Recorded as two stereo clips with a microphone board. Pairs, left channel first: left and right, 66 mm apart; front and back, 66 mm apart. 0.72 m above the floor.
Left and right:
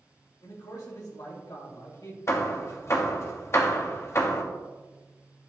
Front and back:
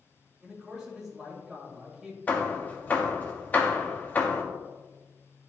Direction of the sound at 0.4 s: 100° left.